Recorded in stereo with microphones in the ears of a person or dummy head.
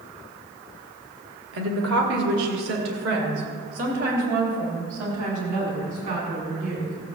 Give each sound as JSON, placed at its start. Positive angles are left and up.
{"t": 1.5, "sound": "a woman speaking", "side_deg": -75, "distance_m": 2.0}